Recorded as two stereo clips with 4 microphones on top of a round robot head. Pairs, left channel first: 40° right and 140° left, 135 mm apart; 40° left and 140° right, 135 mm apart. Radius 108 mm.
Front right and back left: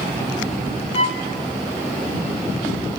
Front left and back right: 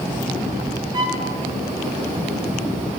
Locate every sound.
0.9 s a violin: 80° right, 2.5 m